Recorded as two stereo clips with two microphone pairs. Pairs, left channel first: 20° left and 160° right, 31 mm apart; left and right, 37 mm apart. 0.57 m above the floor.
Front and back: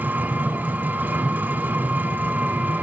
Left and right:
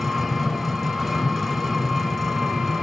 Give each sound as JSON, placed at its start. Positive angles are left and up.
{"t": 0.0, "sound": "an engine running", "azimuth_deg": 180, "distance_m": 1.9}